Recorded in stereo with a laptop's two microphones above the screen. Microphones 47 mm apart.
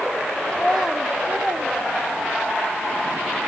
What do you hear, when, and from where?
0.5 s a child speaking: 20° left (ahead or behind), 1.0 m; by 2.6 s 60° right (ahead or behind), 1.8 m